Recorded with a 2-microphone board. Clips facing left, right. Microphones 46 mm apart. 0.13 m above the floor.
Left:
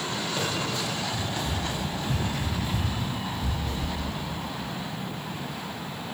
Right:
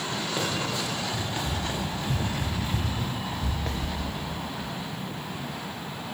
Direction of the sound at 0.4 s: 15° right (ahead or behind).